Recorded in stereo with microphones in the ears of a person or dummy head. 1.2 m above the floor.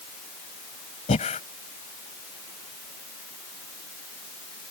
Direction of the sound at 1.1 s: 30° left (ahead or behind).